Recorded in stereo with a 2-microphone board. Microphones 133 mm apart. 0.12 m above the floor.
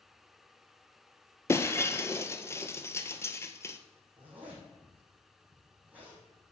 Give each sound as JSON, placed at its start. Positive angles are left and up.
{"t": 1.5, "sound": "breaking glass", "side_deg": 20, "distance_m": 0.5}
{"t": 4.2, "sound": "a zipper", "side_deg": -15, "distance_m": 2.5}